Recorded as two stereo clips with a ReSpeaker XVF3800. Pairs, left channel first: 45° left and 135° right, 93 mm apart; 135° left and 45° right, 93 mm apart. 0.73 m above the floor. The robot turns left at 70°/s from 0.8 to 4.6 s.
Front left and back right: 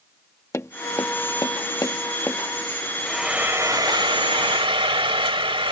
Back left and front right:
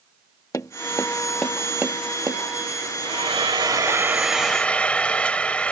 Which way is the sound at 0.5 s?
95° left.